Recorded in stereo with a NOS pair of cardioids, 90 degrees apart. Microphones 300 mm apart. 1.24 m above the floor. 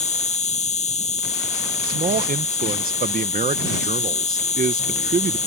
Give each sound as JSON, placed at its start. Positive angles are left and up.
{"t": 0.0, "sound": "an insect", "azimuth_deg": 20}
{"t": 1.9, "sound": "a man speaking", "azimuth_deg": -30}